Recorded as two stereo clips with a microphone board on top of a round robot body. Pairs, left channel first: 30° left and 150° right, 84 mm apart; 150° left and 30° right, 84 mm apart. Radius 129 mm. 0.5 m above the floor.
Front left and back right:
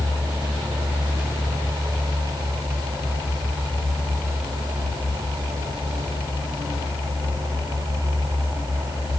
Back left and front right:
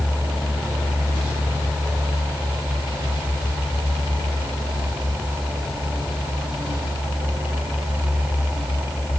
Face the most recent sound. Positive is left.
No sound to turn to.